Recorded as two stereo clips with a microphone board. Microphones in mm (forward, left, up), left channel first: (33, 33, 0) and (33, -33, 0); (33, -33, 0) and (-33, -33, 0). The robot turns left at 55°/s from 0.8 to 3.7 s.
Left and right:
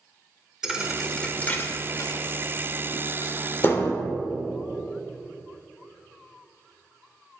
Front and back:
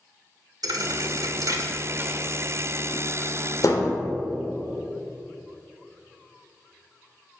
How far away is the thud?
About 1.2 m.